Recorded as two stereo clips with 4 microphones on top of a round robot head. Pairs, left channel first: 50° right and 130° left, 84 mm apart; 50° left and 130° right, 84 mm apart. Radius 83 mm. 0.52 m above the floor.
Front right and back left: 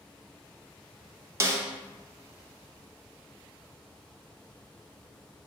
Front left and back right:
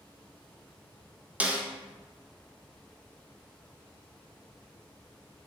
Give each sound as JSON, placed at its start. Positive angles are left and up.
{"t": 1.4, "sound": "a snare drum", "azimuth_deg": 165, "distance_m": 0.7}